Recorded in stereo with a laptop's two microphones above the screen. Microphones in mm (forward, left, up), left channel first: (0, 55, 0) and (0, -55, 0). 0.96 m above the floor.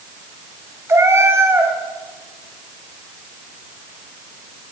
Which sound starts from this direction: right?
A cat meowing, at 0.9 s.